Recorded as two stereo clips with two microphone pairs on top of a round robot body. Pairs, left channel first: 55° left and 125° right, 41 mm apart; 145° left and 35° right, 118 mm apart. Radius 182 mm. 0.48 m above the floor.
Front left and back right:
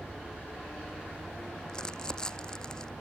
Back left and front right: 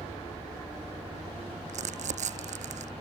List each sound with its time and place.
1.7 s crumpling: 15° right